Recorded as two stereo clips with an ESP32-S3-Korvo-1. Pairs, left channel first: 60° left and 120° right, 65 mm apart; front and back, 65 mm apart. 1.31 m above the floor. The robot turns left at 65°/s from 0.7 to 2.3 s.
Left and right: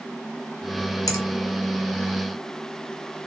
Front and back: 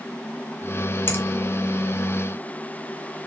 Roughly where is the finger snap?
Ahead left.